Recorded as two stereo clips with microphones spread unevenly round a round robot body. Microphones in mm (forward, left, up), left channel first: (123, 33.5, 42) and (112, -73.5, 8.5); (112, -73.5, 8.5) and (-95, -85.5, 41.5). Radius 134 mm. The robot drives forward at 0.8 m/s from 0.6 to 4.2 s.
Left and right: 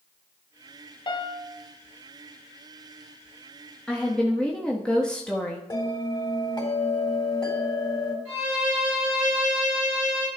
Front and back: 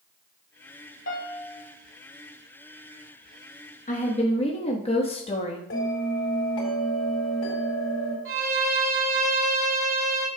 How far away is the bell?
About 4 m.